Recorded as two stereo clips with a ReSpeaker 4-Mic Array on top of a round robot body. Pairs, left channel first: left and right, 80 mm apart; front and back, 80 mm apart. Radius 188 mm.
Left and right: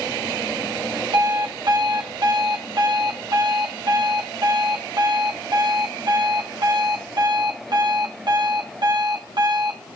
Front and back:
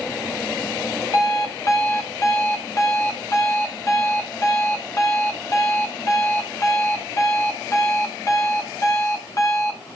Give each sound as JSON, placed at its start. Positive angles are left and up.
{"t": 1.1, "sound": "an alarm clock", "azimuth_deg": -55, "distance_m": 1.1}